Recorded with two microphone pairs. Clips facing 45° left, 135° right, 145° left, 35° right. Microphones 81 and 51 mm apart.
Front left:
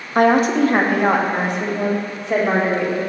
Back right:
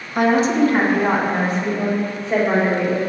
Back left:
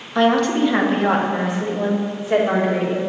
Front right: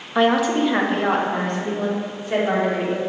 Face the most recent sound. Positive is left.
turn(degrees=65)